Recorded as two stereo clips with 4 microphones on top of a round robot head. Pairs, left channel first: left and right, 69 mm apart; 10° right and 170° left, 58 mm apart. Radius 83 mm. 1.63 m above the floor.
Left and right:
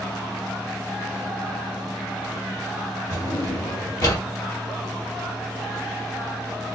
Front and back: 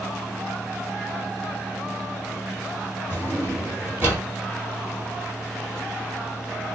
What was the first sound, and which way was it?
A drawer, 115° left.